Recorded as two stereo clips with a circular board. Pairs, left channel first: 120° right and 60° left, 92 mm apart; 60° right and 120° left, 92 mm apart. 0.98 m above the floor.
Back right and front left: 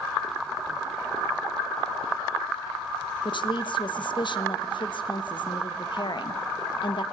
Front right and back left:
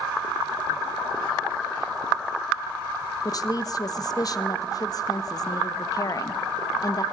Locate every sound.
3.2 s a woman speaking: 100° right, 1.0 m